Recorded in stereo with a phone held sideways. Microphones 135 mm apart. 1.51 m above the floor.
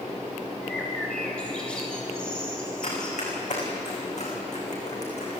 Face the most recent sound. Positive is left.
turn(degrees=60)  # may be behind; listen again after turning